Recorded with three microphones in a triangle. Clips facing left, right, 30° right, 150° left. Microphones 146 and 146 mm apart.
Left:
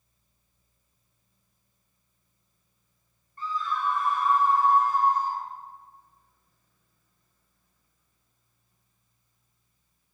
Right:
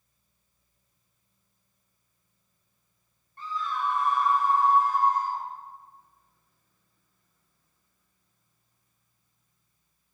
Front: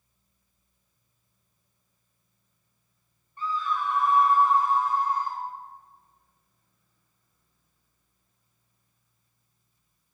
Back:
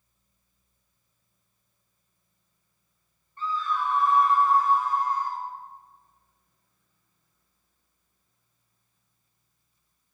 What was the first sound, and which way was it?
A scream, 105° right.